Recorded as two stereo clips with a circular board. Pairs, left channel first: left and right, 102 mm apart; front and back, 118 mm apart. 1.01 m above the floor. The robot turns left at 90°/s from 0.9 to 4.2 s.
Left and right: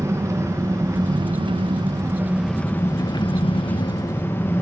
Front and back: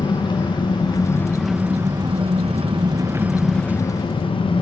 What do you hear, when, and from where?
0.0 s an engine running: 40° right, 0.8 m; by 4.6 s 25° left, 0.8 m